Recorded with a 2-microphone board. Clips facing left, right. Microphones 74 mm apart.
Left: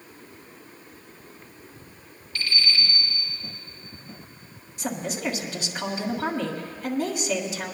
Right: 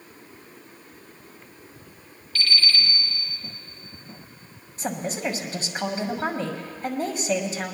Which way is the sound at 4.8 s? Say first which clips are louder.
Right 1 dB; 40° right (ahead or behind).